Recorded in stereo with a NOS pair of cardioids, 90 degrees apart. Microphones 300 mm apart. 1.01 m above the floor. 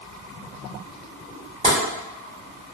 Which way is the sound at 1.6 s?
20° right.